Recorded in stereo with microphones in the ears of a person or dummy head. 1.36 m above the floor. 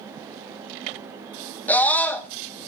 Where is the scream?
10° left (ahead or behind), 1.6 m.